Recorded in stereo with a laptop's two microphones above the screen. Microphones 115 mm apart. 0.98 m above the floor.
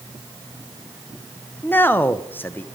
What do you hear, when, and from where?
1.6 s a man speaking: 20° left (ahead or behind), 0.5 m